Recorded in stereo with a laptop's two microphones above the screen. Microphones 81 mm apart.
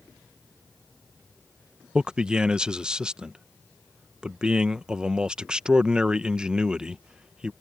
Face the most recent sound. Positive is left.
turn(degrees=-10)  # may be behind; listen again after turning